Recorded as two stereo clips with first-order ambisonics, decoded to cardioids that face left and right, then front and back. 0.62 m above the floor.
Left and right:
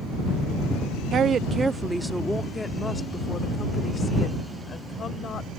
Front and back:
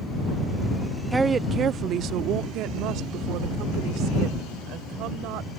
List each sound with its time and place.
1.1 s a woman speaking: 110° right; by 5.5 s 150° left